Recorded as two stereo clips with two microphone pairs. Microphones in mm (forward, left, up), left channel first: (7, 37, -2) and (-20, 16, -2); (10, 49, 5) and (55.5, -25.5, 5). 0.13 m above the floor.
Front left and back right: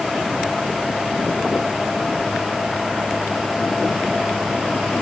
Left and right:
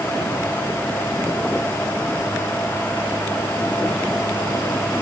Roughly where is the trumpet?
I don't hear a trumpet.